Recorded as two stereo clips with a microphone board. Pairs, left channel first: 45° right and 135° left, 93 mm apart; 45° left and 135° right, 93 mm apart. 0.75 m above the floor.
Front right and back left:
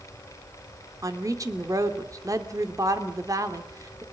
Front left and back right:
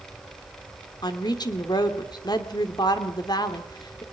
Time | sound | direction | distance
1.0 | a woman speaking | 85° left | 2 m